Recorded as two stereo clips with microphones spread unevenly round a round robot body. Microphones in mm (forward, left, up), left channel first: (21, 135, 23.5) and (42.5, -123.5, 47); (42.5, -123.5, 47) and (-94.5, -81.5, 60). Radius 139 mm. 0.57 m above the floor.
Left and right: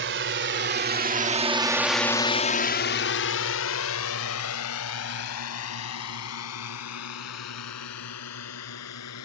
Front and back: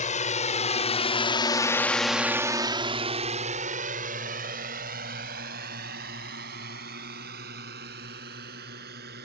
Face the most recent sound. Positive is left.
turn(degrees=130)